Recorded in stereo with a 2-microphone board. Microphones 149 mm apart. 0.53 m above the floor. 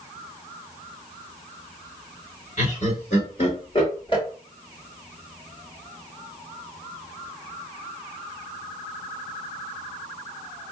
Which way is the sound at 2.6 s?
50° left (ahead or behind).